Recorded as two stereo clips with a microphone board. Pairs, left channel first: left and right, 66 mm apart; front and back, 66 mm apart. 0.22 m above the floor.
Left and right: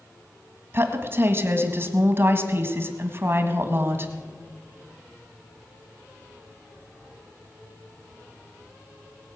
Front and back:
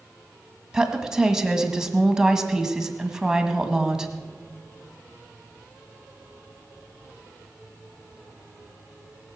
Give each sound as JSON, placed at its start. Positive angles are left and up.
{"t": 0.7, "sound": "a woman speaking", "azimuth_deg": -105, "distance_m": 1.5}